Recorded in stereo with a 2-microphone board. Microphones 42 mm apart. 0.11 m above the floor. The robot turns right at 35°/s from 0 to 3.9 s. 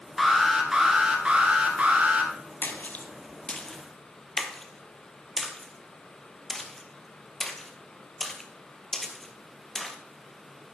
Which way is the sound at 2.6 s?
45° left (ahead or behind).